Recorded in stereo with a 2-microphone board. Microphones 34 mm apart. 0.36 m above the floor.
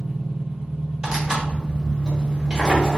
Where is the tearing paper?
25° right (ahead or behind), 1.0 m.